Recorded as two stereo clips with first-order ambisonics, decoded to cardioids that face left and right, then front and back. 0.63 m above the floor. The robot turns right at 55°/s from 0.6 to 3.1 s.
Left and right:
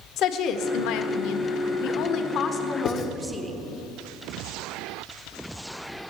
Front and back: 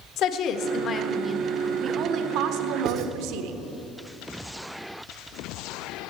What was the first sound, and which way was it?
A woman speaking, 45° left.